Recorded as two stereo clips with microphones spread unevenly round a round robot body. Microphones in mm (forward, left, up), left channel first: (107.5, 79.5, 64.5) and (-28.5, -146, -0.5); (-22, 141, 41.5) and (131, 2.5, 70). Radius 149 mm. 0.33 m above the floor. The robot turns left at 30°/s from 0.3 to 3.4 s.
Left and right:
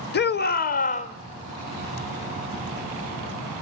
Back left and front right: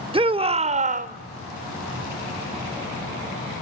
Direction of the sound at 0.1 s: 15° left.